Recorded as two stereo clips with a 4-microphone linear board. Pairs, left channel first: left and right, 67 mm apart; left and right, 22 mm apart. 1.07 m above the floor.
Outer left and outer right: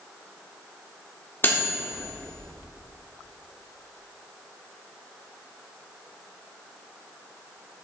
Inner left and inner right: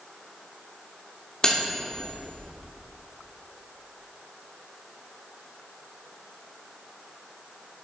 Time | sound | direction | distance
1.4 | cutlery clinking | 35° left (ahead or behind) | 1.4 m